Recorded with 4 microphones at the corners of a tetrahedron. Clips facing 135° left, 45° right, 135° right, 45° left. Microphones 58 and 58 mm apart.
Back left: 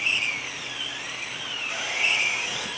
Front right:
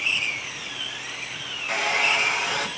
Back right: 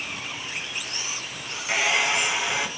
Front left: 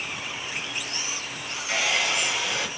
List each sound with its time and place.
1.7 s a hair dryer: 65° right, 2.5 m